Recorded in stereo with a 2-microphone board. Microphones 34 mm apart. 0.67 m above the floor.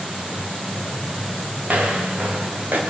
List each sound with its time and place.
1.6 s footsteps: 55° right (ahead or behind), 7 m; by 2.8 s 65° right (ahead or behind), 7 m